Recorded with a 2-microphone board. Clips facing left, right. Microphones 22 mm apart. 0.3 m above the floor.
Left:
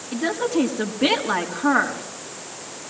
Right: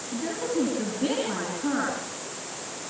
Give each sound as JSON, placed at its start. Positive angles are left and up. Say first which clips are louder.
{"t": 0.1, "sound": "a woman speaking", "louder": "left 6 dB", "side_deg": 45, "distance_m": 4.0}